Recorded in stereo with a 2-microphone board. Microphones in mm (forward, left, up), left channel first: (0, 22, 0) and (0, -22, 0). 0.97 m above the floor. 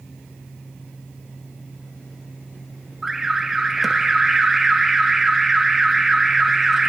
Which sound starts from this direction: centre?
An alarm, at 3.0 s.